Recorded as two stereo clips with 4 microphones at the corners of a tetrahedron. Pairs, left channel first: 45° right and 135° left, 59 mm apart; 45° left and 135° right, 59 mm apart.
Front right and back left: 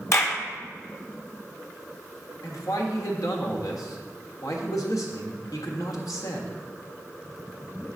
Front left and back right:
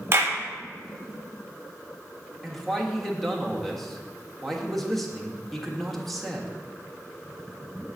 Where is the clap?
85° right, 1.1 m.